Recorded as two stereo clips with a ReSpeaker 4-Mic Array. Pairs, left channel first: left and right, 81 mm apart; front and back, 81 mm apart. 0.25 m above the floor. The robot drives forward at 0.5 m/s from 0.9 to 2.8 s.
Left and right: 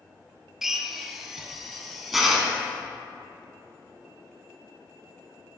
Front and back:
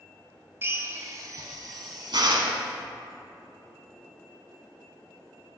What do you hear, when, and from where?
0.6 s a drill: 170° right, 0.5 m; by 2.6 s straight behind, 1.2 m